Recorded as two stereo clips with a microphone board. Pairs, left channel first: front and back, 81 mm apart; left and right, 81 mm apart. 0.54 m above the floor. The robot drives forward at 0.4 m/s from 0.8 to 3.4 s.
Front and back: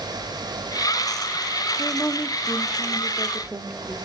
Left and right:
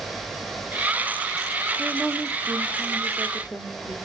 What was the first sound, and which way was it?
A woman speaking, 35° left.